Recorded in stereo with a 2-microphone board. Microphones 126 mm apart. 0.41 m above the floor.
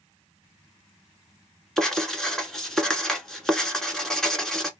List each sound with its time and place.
1.8 s writing: 5° left (ahead or behind), 0.9 m